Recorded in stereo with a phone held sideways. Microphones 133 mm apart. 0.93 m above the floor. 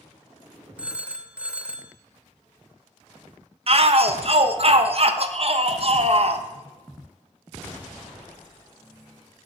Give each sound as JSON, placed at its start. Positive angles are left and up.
{"t": 0.8, "sound": "a phone ringing", "side_deg": -10, "distance_m": 0.8}
{"t": 3.7, "sound": "a shout", "side_deg": -50, "distance_m": 1.0}